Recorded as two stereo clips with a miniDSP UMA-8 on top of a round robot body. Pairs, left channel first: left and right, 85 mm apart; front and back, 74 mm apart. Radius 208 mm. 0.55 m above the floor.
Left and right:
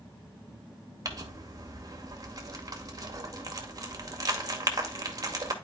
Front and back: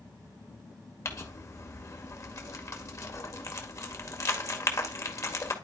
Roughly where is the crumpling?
Ahead right.